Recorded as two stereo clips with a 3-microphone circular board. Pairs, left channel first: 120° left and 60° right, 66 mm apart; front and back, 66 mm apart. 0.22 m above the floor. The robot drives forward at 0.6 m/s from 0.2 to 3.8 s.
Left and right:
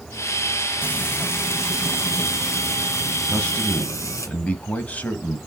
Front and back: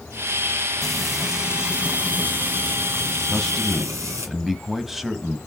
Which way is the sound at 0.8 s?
85° left.